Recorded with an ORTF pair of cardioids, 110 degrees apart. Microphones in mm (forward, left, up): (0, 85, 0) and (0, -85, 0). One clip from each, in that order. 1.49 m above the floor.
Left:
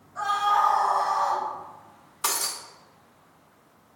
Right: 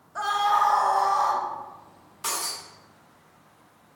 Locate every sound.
0.1 s a scream: 50° right, 2.5 m; by 1.4 s 75° right, 3.5 m
2.2 s breaking glass: 40° left, 1.9 m